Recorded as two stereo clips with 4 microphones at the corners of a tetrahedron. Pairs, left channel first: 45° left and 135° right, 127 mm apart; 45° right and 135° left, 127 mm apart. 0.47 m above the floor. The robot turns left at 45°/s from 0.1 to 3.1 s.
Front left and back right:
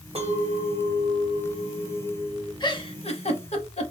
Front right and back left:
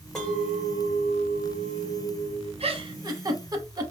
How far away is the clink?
About 1.1 m.